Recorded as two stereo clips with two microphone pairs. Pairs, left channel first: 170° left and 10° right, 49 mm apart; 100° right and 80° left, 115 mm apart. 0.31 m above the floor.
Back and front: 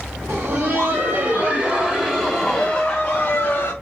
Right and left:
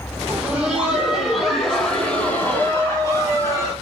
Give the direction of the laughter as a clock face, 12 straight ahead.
12 o'clock.